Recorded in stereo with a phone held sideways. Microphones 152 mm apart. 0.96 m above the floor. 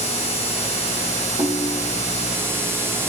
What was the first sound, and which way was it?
A ringtone, 25° right (ahead or behind).